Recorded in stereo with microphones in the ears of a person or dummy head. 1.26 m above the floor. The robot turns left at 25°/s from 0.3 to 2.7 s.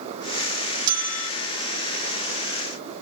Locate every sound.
0.9 s a bell: 55° right (ahead or behind), 0.9 m; by 1.3 s 60° right (ahead or behind), 0.9 m